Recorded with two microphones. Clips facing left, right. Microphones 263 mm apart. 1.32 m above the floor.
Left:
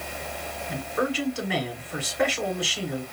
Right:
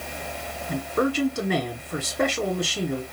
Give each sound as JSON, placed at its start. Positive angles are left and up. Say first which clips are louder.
{"t": 0.7, "sound": "a man speaking", "louder": "right 4 dB", "side_deg": -45, "distance_m": 1.2}